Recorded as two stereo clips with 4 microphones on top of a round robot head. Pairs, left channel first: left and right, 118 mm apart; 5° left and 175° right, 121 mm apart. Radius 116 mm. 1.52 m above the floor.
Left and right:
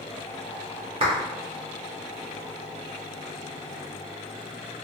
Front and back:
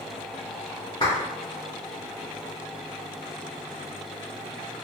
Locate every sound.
1.0 s a clap: 65° right, 0.7 m